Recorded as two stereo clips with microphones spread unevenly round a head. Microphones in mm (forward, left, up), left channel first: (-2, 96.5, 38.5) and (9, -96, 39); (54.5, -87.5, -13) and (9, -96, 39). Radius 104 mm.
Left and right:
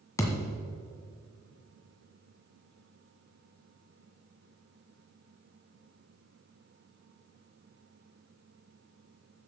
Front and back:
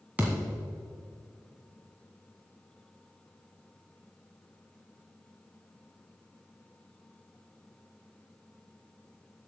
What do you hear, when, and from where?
0.2 s a thud: 170° left, 1.6 m